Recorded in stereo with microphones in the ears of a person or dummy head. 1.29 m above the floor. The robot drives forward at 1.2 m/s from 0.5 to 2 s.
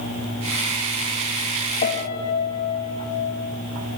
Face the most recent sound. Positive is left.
turn(degrees=60)  # may be behind; listen again after turning